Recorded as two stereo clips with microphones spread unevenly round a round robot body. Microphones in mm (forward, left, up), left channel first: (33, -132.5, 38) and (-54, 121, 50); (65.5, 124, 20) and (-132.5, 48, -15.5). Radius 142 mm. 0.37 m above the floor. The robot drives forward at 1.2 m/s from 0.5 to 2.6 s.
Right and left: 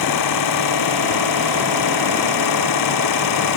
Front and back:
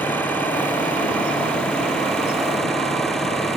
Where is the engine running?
65° right; by 3.6 s 70° right.